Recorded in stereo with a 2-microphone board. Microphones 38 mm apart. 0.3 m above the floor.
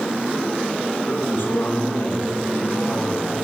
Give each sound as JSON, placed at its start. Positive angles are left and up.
{"t": 1.1, "sound": "a man speaking", "side_deg": 80, "distance_m": 9.0}